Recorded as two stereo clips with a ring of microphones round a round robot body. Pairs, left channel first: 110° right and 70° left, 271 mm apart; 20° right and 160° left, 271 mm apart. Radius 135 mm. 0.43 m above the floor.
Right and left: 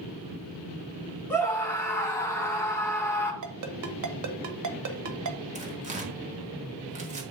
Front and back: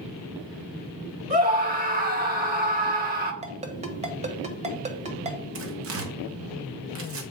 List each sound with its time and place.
1.3 s a scream: 175° left, 1.5 m
3.4 s a ringtone: 90° left, 0.9 m
5.5 s tearing paper: 125° left, 1.3 m